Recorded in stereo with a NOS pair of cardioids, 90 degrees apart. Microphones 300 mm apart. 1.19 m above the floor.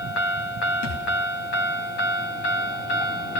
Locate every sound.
0.8 s a thud: 65° left, 4 m